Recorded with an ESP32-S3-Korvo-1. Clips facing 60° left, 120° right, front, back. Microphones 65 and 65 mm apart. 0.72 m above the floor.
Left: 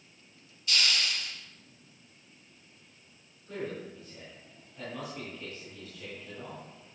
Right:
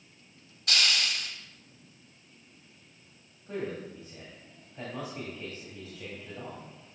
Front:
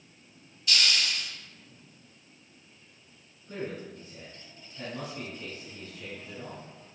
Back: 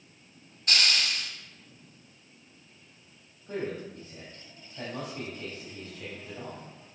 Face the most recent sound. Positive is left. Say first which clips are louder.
# right 2 dB, back 3 dB
turn(degrees=-175)